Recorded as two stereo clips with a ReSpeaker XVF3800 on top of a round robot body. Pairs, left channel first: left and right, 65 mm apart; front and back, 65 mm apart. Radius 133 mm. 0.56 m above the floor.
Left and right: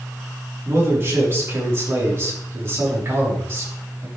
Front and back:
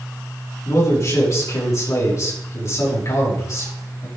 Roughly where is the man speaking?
Ahead right.